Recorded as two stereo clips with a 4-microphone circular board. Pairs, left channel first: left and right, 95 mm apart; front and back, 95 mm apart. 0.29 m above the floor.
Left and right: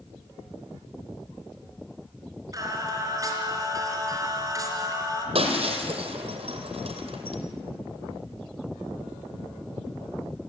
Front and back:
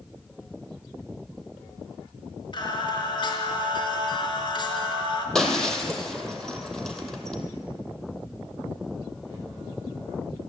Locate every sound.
2.5 s singing: 35° right, 3.5 m
5.3 s breaking glass: 85° right, 2.5 m